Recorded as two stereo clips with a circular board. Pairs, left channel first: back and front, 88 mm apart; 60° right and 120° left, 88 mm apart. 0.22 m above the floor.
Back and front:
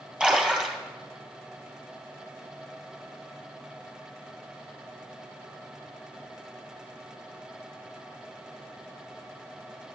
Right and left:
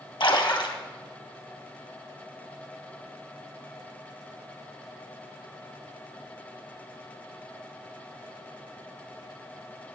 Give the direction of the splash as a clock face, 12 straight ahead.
3 o'clock.